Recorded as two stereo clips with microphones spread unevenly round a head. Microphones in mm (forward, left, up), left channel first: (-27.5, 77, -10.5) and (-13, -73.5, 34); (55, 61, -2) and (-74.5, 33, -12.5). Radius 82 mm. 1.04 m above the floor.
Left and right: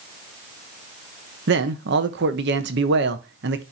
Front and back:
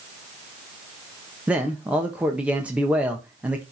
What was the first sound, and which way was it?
A man speaking, 90° right.